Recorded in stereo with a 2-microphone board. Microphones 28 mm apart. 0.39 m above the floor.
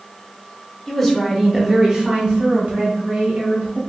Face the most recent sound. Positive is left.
turn(degrees=-55)  # may be behind; listen again after turning